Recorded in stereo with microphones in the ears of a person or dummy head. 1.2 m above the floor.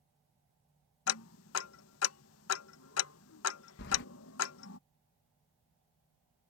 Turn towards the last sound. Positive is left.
turn(degrees=65)  # may be behind; listen again after turning